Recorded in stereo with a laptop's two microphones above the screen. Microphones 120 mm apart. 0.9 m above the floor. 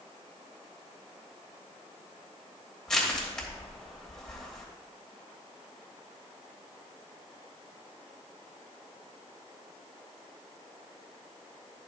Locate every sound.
2.9 s crushing: 5° left (ahead or behind), 3 m